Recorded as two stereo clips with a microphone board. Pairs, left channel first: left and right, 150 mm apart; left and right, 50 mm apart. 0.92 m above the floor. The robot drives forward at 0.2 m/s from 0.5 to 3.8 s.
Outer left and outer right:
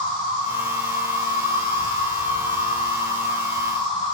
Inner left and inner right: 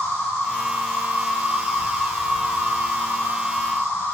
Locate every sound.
0.0 s an insect: 65° left (ahead or behind), 0.9 m; by 4.1 s 55° left (ahead or behind), 1.0 m